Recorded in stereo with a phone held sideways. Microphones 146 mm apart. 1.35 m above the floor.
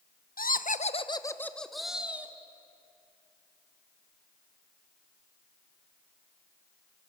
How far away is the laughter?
About 1.0 m.